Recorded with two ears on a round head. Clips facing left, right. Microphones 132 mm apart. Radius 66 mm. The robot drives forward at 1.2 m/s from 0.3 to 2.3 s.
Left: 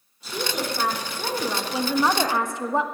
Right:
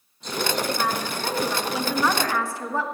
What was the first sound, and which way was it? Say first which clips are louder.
A woman speaking: right 2 dB; 5° left (ahead or behind).